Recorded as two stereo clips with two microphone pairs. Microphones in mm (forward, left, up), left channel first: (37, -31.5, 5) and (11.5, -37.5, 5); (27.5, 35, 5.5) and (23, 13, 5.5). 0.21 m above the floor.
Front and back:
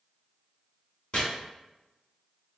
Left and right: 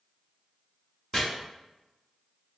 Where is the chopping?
10° left, 1.9 m.